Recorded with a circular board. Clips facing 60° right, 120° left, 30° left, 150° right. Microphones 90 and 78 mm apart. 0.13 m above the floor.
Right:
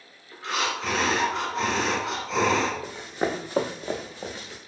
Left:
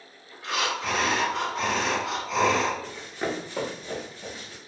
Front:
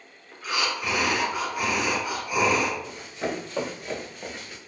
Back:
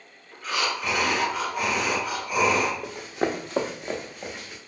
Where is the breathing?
45° right, 1.2 m.